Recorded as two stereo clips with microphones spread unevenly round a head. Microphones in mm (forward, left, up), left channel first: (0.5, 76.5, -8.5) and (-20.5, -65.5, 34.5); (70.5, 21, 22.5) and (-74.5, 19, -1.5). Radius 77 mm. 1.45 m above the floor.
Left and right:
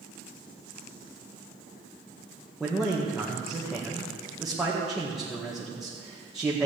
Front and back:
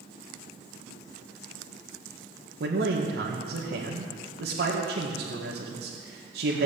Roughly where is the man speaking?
Behind.